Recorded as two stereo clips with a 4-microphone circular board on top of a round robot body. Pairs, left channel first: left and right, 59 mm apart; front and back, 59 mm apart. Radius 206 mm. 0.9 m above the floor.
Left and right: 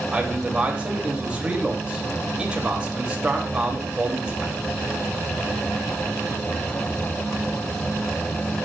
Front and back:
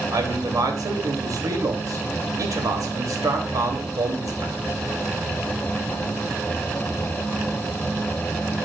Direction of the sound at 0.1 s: 160° right.